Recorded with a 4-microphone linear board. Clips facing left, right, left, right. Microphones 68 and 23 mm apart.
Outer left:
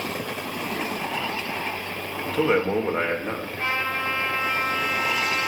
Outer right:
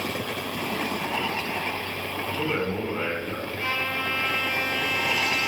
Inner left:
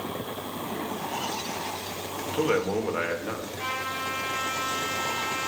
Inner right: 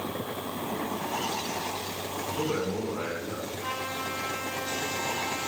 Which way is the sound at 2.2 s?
75° left (ahead or behind).